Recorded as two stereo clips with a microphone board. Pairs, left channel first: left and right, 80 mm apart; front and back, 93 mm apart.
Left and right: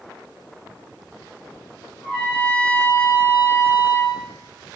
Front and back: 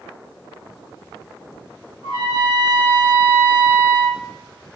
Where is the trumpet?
160° left, 1.8 m.